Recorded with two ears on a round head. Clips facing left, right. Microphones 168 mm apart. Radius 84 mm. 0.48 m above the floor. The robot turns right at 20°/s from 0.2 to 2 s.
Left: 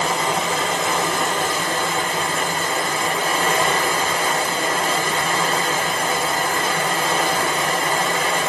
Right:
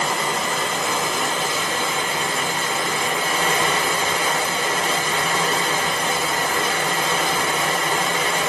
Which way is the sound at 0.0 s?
110° left.